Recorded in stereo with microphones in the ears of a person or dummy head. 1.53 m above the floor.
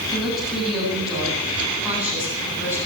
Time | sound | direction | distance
0.1 | a woman speaking | centre (ahead or behind) | 9 m